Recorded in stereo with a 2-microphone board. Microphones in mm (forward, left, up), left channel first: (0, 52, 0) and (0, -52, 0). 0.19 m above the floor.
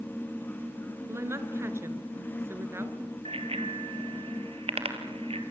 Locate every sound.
1.1 s a woman speaking: 25° right (ahead or behind), 3 m
3.2 s a bicycle bell: 75° right (ahead or behind), 3 m